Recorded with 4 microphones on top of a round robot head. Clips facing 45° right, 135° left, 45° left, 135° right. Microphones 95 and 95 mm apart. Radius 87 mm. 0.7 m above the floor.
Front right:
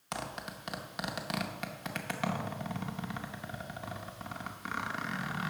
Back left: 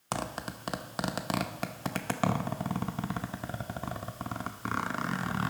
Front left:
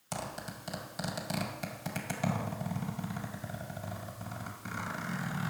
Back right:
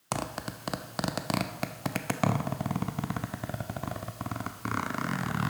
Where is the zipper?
170° right, 0.6 m.